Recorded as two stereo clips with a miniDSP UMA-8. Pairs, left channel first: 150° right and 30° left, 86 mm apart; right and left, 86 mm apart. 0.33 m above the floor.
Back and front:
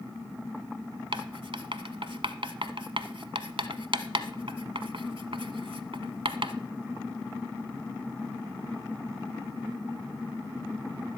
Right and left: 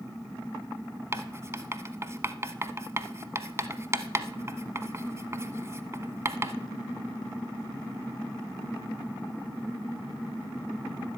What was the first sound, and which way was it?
Writing, 35° left.